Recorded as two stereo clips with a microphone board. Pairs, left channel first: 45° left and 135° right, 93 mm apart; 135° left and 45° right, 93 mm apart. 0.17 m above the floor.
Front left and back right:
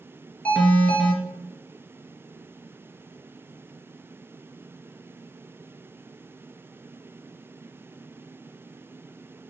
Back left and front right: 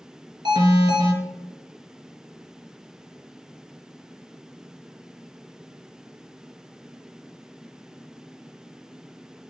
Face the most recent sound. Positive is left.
turn(degrees=-30)